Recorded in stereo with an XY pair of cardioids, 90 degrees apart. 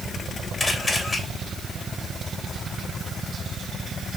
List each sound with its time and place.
0.6 s a camera shutter: 35° left, 3.5 m